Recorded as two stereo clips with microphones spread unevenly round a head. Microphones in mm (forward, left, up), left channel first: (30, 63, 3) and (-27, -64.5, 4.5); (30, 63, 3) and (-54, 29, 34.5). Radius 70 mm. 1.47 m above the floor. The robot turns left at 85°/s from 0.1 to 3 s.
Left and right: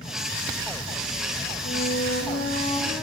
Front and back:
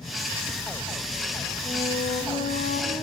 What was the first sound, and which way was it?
A flute, 85° left.